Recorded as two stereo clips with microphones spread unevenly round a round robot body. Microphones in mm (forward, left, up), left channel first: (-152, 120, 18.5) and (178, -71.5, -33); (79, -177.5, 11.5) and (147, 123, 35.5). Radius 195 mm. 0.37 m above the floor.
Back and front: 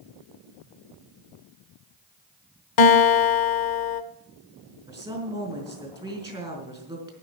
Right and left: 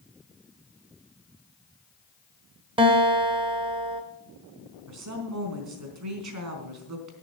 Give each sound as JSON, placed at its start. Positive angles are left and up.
{"t": 2.8, "sound": "a guitar", "azimuth_deg": 150, "distance_m": 1.0}
{"t": 4.9, "sound": "a woman speaking", "azimuth_deg": 50, "distance_m": 4.0}